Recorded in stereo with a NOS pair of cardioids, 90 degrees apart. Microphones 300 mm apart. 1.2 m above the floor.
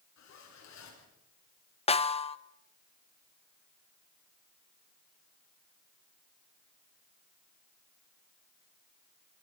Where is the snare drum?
20° left, 1.1 m.